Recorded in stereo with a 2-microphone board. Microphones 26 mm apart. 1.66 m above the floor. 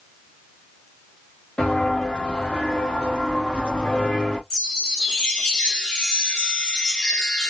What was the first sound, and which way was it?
Footsteps, 55° left (ahead or behind).